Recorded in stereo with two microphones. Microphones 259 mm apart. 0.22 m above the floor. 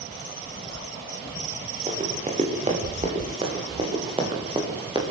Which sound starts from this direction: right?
Running footsteps, at 1.9 s.